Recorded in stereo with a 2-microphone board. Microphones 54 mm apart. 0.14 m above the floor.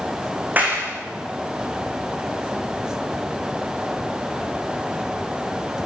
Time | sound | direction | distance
0.6 | a clap | 35° right (ahead or behind) | 7.5 m